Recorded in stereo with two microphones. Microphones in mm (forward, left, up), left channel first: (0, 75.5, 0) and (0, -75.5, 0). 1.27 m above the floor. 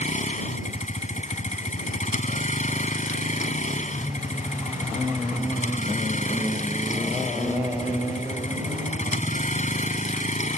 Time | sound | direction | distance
0.0 | a vehicle | 50° left (ahead or behind) | ?